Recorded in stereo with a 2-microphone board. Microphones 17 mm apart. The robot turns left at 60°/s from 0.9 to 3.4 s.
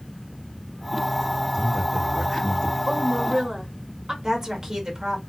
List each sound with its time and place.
1.5 s a man speaking: 130° right, 1.8 m; by 2.8 s 155° left, 1.8 m
2.9 s a woman speaking: 70° right, 1.4 m; by 4.1 s 105° right, 1.4 m
4.2 s a woman speaking: 40° right (ahead or behind), 1.6 m